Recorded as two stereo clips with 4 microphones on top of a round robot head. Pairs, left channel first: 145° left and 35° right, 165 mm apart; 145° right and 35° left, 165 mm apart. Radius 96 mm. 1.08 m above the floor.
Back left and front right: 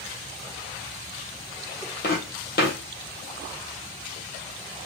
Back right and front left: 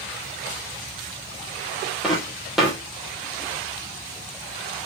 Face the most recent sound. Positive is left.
turn(degrees=125)